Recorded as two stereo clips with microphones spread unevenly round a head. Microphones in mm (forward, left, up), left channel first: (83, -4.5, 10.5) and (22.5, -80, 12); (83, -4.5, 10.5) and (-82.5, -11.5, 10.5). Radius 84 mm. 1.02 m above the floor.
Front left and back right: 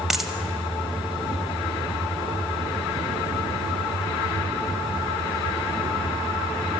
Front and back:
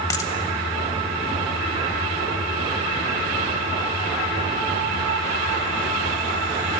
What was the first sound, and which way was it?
A dropped coin, 50° right.